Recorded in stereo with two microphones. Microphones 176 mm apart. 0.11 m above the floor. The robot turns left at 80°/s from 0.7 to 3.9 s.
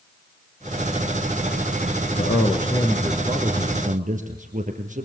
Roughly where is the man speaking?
Left.